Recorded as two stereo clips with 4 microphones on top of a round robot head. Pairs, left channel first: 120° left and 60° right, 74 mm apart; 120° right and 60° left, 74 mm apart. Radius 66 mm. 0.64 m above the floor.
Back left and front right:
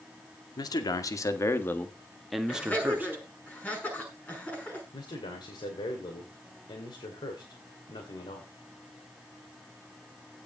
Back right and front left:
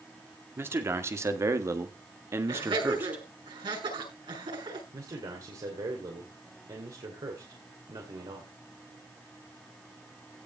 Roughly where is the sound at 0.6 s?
Left.